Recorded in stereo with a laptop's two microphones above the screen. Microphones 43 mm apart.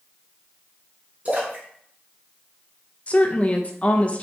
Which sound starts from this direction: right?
A splash, at 1.2 s.